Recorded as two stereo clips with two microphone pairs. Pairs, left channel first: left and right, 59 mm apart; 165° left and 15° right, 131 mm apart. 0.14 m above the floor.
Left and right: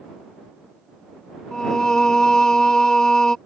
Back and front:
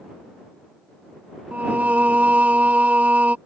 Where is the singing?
35° left.